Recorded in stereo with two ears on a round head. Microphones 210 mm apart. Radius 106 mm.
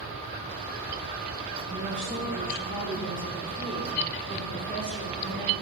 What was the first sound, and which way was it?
A woman speaking, 40° right (ahead or behind).